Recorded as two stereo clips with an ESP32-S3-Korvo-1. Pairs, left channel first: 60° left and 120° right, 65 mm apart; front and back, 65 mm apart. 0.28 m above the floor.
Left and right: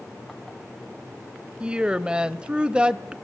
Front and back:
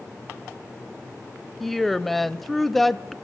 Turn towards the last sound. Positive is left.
turn(degrees=-85)